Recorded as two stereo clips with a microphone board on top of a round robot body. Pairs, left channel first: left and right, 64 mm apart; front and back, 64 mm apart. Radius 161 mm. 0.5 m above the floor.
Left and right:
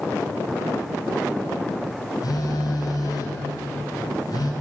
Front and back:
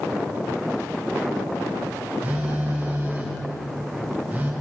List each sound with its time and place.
2.2 s a phone buzzing: 105° left, 2.5 m